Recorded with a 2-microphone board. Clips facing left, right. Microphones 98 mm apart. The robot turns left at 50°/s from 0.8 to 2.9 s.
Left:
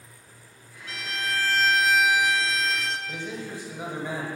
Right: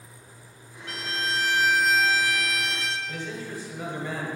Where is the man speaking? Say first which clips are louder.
Even; 20° left (ahead or behind), 1.0 m.